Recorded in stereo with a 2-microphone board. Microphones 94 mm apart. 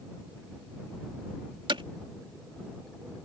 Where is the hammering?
65° right (ahead or behind).